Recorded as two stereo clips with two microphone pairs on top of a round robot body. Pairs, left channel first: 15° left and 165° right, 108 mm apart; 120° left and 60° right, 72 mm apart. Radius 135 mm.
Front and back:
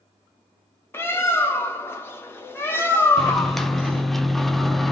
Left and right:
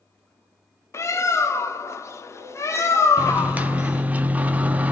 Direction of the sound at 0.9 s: 80° left.